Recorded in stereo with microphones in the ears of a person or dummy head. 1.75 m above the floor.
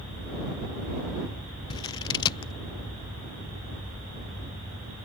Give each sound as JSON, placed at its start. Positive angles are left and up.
{"t": 1.7, "sound": "scissors", "side_deg": 15}